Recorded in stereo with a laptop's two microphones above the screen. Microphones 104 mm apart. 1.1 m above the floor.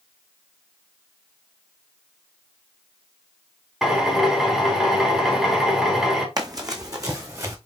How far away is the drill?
About 2 m.